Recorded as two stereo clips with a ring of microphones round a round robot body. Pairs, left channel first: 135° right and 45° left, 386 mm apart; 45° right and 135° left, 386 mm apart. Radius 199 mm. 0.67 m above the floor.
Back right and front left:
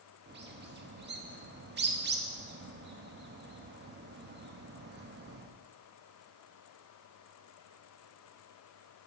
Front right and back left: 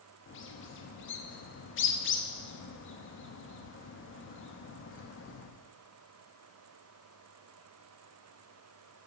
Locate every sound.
0.3 s a bird: 5° right, 1.1 m